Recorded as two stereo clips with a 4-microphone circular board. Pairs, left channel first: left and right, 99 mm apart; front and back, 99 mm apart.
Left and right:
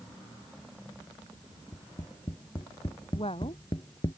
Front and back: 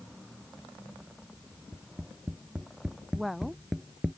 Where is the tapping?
100° left.